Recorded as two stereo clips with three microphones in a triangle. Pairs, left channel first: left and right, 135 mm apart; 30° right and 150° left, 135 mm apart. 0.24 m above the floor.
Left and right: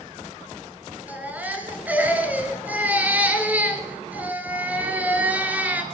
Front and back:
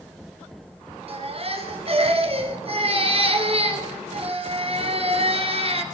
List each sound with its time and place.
1.1 s a baby crying: 170° right, 1.7 m